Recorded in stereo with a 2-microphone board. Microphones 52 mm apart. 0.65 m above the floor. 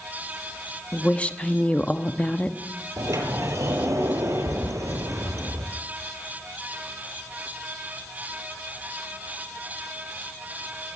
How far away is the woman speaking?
About 1.0 m.